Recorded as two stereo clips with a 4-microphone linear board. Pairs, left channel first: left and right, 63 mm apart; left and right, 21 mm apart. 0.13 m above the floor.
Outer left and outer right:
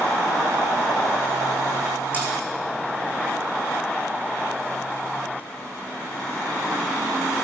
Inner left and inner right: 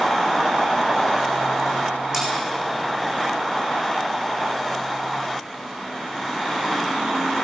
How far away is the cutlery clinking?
About 4 m.